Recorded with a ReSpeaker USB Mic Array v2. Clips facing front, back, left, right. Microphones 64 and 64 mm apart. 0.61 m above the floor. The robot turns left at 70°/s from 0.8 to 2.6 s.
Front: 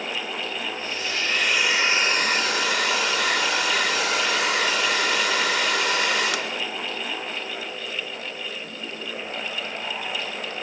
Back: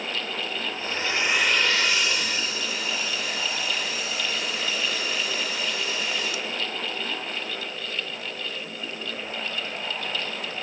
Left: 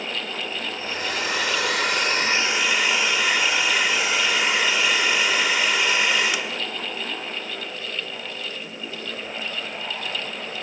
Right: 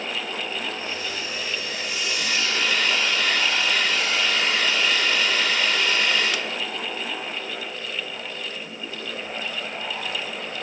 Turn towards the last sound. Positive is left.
turn(degrees=10)